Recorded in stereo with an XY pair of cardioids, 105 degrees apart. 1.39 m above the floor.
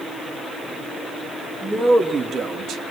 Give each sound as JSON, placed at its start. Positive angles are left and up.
{"t": 1.6, "sound": "a man speaking", "azimuth_deg": -25, "distance_m": 2.5}